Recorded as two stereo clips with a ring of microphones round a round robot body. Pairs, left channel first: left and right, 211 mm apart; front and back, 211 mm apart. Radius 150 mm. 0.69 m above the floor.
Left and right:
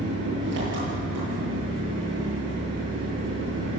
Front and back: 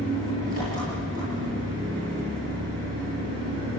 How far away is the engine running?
About 9.5 m.